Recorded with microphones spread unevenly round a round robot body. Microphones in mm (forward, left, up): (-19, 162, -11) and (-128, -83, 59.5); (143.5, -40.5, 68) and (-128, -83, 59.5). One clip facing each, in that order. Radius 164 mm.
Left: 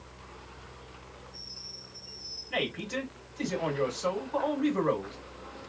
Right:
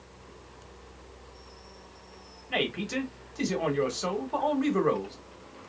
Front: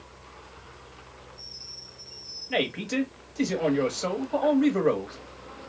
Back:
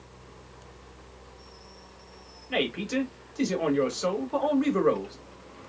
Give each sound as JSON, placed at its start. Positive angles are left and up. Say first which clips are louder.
{"t": 2.5, "sound": "a man speaking", "louder": "right 3 dB, even", "azimuth_deg": -95, "distance_m": 1.3}